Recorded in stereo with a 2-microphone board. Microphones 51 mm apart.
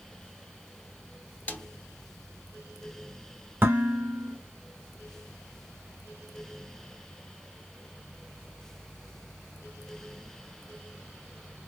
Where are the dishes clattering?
45° right (ahead or behind), 1.9 m.